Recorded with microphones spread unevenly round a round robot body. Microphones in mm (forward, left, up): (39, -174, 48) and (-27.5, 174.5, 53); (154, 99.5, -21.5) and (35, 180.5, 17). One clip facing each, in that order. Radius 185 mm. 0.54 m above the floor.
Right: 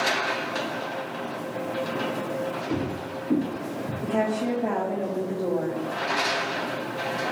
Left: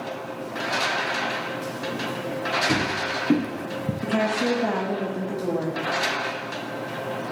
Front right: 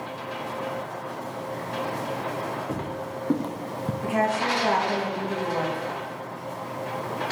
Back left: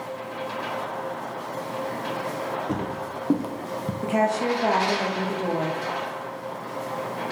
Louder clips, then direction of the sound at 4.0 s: Left 1 dB, back left 2 dB; 80° left.